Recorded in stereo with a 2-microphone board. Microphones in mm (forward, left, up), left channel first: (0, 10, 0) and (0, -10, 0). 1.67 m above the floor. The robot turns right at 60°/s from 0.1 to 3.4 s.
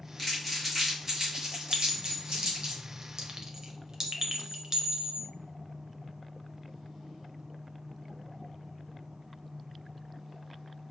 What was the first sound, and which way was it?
Crumpling, 25° left (ahead or behind).